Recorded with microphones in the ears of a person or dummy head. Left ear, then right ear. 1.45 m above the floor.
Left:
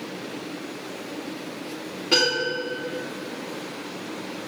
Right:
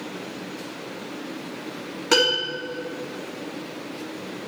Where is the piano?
55° right (ahead or behind), 2.5 m.